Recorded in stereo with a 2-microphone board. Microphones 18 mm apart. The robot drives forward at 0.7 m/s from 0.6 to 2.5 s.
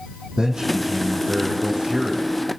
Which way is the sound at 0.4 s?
50° right (ahead or behind).